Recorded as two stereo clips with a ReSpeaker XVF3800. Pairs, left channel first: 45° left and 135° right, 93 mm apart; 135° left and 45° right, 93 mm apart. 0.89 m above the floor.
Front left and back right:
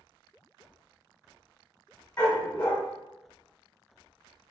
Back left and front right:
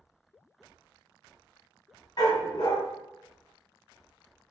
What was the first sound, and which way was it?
A dog barking, 115° left.